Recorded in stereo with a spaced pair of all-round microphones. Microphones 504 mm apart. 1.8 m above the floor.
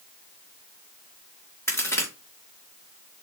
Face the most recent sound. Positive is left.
turn(degrees=5)  # may be behind; listen again after turning